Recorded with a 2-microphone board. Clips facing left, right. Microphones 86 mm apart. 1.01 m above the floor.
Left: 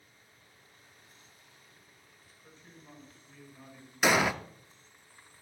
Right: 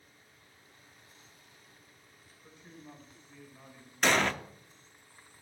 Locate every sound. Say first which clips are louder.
2.4 s a man speaking: right 3 dB; 10° right (ahead or behind), 4.5 m
4.0 s an explosion: left 1 dB; 10° left (ahead or behind), 0.6 m